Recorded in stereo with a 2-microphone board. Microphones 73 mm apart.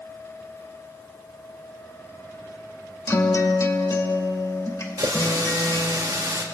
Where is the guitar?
45° left (ahead or behind), 1.5 m.